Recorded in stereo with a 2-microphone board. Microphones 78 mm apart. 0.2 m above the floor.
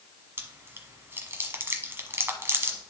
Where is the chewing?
30° right (ahead or behind), 1.2 m.